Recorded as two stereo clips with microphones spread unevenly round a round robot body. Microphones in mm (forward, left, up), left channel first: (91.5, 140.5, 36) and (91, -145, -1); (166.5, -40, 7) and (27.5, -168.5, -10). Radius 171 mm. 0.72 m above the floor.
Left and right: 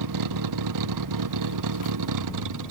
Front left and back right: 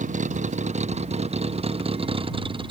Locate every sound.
0.0 s a vehicle: 90° right; by 2.7 s 75° right